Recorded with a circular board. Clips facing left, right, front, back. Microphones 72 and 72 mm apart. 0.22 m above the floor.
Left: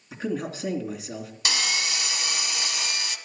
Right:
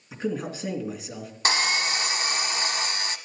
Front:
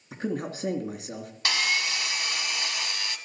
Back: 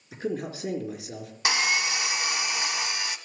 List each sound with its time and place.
0.1 s a man speaking: straight ahead, 2.5 m
1.4 s sawing: 120° right, 0.7 m